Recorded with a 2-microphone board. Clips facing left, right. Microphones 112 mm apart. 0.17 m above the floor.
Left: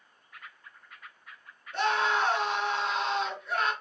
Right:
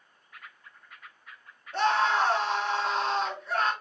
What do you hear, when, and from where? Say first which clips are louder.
1.7 s a scream: right 3 dB; 40° right (ahead or behind), 1.8 m